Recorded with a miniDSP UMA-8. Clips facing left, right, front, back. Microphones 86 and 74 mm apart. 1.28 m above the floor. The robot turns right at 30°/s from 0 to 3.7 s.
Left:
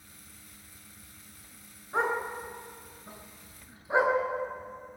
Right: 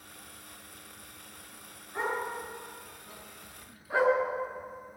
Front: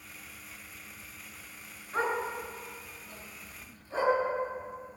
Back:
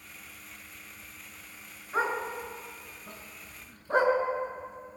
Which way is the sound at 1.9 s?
105° left.